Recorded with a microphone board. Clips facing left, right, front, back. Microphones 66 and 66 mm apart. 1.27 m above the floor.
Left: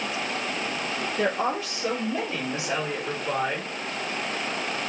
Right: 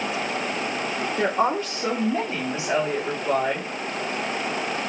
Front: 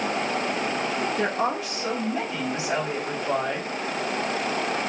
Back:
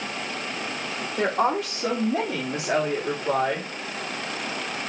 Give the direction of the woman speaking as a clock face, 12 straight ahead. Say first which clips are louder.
Right 4 dB, back 7 dB; 5 o'clock.